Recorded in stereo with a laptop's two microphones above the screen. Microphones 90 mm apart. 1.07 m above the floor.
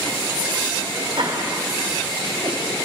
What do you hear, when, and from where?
1.1 s laughter: 70° right (ahead or behind), 4 m; by 2.8 s 55° right (ahead or behind), 6 m